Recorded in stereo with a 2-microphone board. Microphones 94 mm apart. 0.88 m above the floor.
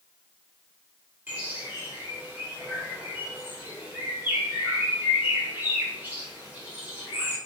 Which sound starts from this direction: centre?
A bird, at 1.3 s.